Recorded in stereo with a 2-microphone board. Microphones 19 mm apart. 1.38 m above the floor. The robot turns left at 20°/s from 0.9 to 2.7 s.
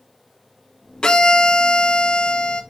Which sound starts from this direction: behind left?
A violin, at 1.0 s.